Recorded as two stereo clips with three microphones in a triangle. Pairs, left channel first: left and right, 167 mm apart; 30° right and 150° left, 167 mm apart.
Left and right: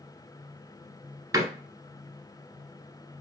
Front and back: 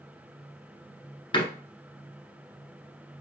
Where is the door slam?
45° right, 0.9 m.